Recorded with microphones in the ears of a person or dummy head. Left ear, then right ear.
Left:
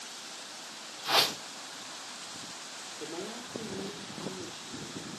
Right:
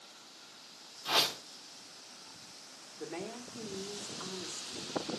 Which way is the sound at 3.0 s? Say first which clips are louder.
Even; 65° right (ahead or behind).